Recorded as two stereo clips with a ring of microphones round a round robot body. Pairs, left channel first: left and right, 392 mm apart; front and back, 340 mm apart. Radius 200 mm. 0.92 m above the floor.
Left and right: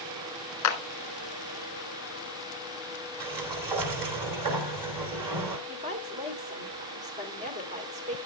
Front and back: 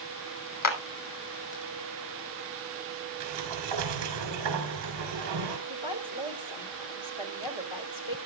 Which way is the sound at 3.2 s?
130° right.